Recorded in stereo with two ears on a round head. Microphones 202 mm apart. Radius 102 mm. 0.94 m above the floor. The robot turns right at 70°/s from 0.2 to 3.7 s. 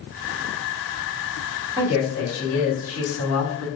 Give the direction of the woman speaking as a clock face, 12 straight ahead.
1 o'clock.